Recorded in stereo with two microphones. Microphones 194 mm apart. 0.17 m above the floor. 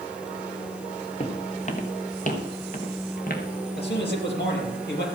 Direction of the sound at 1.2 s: 30° left (ahead or behind).